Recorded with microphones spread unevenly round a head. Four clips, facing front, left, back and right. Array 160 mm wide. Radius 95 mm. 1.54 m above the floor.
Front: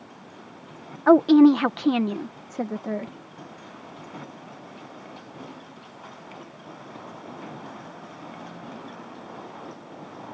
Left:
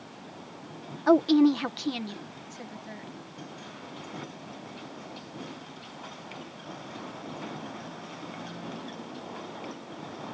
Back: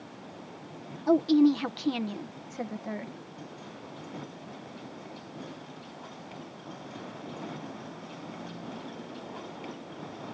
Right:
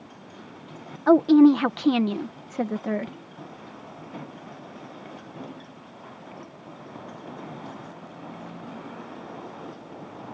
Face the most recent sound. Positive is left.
turn(degrees=-50)